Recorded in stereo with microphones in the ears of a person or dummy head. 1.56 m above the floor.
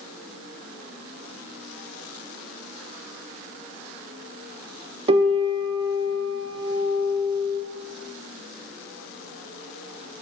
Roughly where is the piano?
Right.